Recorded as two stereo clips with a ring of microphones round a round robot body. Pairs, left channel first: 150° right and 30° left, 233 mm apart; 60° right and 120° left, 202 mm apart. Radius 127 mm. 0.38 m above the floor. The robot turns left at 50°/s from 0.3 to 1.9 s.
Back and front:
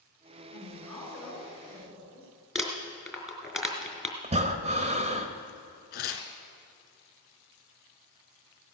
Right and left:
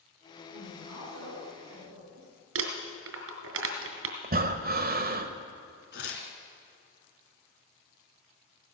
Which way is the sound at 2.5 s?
120° left.